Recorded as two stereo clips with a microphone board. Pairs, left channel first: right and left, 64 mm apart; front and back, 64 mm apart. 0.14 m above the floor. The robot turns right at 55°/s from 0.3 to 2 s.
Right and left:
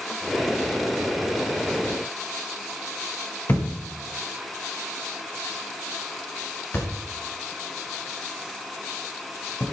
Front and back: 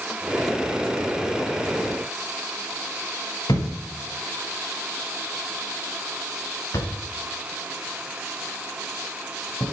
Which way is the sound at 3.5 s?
30° right.